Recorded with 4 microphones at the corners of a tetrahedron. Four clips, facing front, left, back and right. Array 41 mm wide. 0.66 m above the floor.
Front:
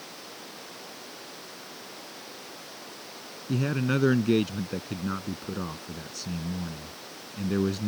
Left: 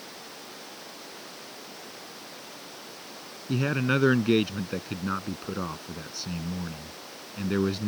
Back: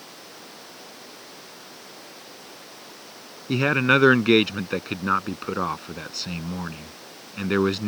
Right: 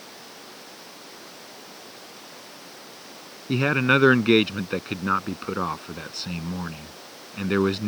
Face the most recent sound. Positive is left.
turn(degrees=-145)